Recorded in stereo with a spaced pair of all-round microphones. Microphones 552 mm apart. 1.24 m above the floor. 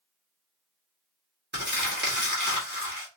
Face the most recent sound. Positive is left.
turn(degrees=-20)  # may be behind; listen again after turning